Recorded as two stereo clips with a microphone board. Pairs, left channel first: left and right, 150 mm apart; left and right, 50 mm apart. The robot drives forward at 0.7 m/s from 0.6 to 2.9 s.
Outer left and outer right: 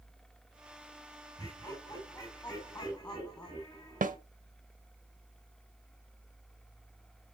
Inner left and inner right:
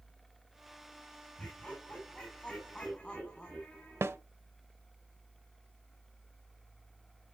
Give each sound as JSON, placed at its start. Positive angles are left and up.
{"t": 1.4, "sound": "laughter", "side_deg": 25, "distance_m": 3.5}
{"t": 4.0, "sound": "a snare drum", "side_deg": -55, "distance_m": 0.5}